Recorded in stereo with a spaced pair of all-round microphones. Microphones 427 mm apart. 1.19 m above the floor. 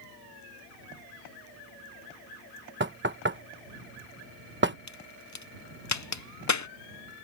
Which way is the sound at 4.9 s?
40° left (ahead or behind).